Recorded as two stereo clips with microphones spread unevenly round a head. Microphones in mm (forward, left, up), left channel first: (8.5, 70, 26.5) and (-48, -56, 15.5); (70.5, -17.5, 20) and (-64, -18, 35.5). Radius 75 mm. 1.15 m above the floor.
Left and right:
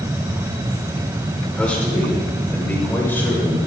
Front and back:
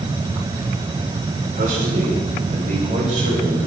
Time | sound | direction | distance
1.5 | a man speaking | 145° left | 4.5 m